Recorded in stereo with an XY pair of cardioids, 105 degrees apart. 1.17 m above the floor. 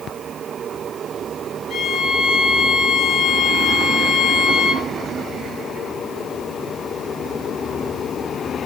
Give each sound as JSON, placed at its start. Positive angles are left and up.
{"t": 1.7, "sound": "a violin", "azimuth_deg": 55, "distance_m": 5.5}